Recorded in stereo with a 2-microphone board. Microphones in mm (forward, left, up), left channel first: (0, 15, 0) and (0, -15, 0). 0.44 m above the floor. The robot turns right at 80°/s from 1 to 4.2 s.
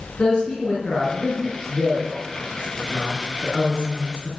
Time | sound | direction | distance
0.2 | a man speaking | 40° left (ahead or behind) | 6.5 m